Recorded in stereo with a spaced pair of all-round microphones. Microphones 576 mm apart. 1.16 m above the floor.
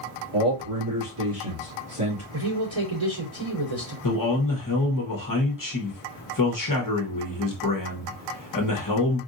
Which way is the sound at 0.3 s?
60° right (ahead or behind).